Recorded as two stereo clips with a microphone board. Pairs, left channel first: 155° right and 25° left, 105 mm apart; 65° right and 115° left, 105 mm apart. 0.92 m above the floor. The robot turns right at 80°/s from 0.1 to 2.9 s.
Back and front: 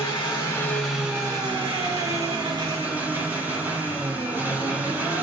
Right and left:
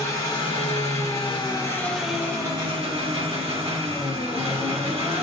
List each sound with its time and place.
0.0 s an engine running: 130° right, 1.5 m; by 5.2 s 95° left, 1.5 m